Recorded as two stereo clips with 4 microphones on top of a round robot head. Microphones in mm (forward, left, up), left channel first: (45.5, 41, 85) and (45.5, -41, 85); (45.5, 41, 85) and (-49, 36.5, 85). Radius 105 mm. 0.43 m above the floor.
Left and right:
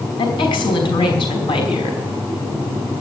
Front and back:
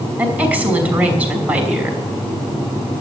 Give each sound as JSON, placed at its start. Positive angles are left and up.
{"t": 0.2, "sound": "a woman speaking", "azimuth_deg": 105, "distance_m": 5.0}